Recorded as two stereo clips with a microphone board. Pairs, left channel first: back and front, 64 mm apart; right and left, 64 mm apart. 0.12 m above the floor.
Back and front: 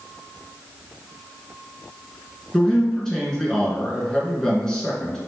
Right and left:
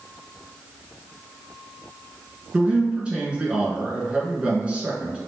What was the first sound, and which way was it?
A man speaking, 125° left.